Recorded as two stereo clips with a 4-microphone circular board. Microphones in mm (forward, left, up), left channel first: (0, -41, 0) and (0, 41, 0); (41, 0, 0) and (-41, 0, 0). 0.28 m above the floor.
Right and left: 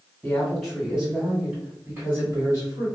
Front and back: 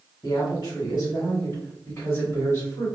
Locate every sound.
0.2 s a woman speaking: 15° right, 1.7 m; by 2.9 s 60° left, 1.8 m